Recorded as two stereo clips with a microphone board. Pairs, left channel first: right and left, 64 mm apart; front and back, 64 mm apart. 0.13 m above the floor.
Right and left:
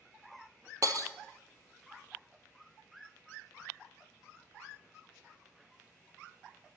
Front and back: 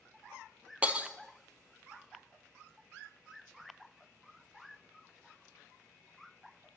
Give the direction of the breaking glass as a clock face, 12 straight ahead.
8 o'clock.